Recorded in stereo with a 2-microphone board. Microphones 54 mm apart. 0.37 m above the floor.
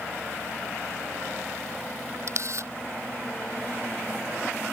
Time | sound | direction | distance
2.3 | a camera shutter | 60° right (ahead or behind) | ?